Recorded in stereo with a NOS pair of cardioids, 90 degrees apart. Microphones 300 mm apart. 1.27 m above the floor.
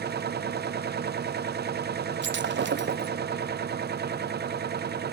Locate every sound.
0.0 s a machine running: 35° right, 0.8 m
2.2 s breaking glass: 40° right, 1.1 m